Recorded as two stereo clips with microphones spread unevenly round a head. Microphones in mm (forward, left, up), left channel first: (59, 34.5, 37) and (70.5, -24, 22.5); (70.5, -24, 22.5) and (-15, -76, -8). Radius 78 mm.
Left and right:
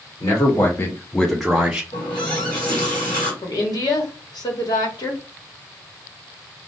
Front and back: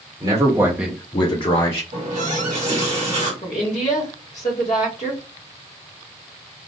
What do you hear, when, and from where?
0.2 s a man speaking: 160° left, 1.4 m; by 1.8 s 15° right, 1.2 m
1.9 s a running tap: 155° left, 1.3 m
3.4 s a woman speaking: 80° left, 1.1 m